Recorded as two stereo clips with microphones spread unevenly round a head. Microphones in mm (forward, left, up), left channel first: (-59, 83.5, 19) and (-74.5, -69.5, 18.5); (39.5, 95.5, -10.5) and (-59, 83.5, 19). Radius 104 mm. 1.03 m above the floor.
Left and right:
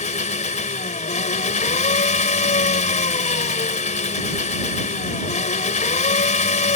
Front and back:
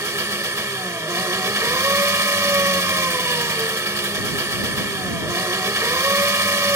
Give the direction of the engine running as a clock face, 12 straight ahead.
8 o'clock.